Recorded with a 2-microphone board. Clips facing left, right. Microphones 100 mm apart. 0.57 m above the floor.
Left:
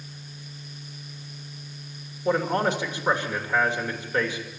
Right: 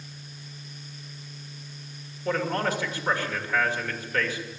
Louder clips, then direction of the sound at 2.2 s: Left 3 dB; 20° left (ahead or behind).